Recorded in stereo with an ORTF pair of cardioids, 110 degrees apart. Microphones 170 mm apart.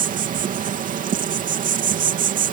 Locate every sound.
0.0 s an insect: 55° right